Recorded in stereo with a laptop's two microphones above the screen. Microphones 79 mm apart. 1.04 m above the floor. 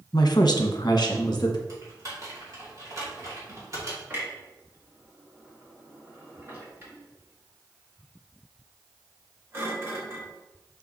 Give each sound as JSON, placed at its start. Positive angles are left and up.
{"t": 0.1, "sound": "a woman speaking", "side_deg": 55, "distance_m": 0.8}
{"t": 1.7, "sound": "typing on a keyboard", "side_deg": -45, "distance_m": 2.5}
{"t": 4.1, "sound": "a clunk", "side_deg": -30, "distance_m": 1.4}